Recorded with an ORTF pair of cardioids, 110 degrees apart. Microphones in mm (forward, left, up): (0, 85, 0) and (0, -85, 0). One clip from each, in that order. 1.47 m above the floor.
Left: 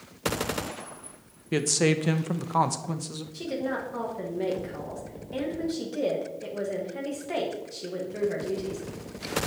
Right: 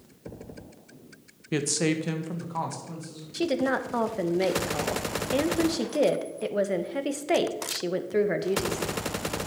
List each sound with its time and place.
1.5 s a woman speaking: straight ahead, 1.0 m; by 3.2 s 60° left, 1.5 m
3.3 s a woman speaking: 50° right, 1.3 m